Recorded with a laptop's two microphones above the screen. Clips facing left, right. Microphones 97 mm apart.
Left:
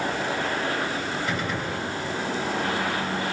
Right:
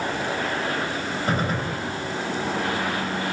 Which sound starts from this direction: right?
A gunshot, at 1.3 s.